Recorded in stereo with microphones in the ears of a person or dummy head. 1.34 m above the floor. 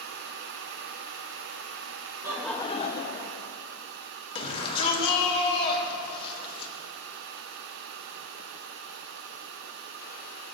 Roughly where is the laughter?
Centre.